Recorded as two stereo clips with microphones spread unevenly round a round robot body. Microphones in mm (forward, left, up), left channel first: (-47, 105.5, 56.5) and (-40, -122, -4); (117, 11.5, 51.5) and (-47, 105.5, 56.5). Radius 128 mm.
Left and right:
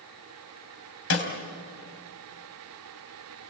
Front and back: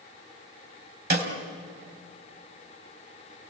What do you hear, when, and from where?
1.1 s a snare drum: 115° left, 3.5 m